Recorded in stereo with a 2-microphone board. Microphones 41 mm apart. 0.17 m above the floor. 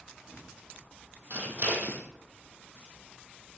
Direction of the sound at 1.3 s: 40° right (ahead or behind).